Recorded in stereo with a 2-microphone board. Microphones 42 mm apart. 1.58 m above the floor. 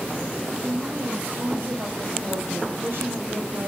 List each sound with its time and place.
0.6 s a woman speaking: 65° right (ahead or behind), 8 m